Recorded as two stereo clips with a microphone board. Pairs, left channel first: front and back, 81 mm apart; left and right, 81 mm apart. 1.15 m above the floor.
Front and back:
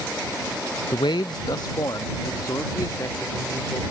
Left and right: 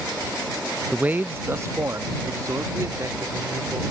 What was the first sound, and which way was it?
A man speaking, 10° right.